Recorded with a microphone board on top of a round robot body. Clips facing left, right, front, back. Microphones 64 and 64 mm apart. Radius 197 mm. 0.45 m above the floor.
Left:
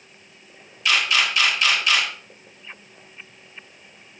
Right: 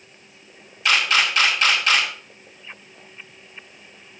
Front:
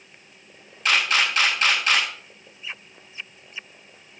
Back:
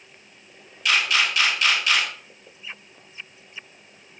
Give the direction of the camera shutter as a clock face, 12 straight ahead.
2 o'clock.